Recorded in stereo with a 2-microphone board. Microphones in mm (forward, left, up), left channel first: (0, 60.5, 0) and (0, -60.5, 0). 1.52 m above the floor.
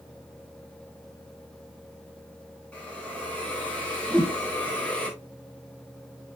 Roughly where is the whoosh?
Centre.